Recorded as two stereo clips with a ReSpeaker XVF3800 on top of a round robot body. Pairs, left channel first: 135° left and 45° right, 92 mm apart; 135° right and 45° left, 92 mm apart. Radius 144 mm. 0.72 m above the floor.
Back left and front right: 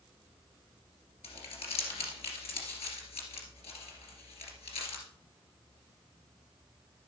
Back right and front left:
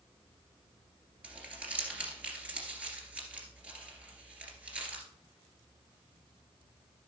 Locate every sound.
1.2 s crumpling: 125° left, 2.5 m